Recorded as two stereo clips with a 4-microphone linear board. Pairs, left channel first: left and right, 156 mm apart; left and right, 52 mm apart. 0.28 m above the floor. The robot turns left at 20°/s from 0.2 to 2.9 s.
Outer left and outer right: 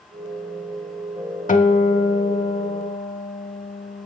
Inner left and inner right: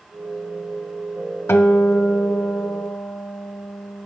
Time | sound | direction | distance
1.5 | a guitar | 55° left (ahead or behind) | 0.5 m